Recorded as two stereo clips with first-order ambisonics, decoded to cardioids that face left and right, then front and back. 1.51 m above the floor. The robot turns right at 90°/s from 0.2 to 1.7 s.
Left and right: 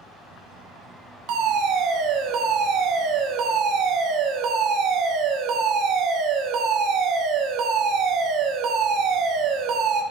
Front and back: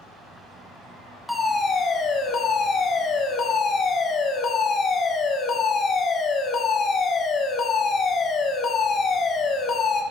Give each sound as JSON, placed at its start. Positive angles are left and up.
{"t": 1.3, "sound": "a fire alarm", "azimuth_deg": -90, "distance_m": 2.0}